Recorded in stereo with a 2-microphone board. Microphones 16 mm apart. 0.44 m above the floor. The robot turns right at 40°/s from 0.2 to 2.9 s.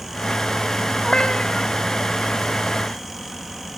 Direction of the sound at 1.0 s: 65° left (ahead or behind).